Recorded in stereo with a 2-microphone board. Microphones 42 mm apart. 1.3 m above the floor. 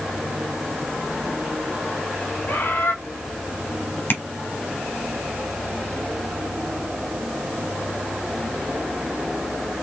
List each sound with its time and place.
2.5 s a bird: 75° left (ahead or behind), 2.5 m
4.1 s tapping: 60° left (ahead or behind), 1.5 m